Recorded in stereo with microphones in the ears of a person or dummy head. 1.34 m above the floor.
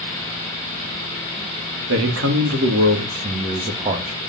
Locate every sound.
1.9 s a man speaking: 85° right, 2.5 m; by 4.2 s 25° right (ahead or behind), 2 m